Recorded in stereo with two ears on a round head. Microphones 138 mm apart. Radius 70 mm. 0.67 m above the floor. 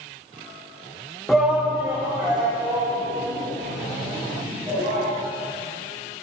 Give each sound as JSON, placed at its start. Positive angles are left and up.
{"t": 1.3, "sound": "a shout", "side_deg": 0, "distance_m": 0.5}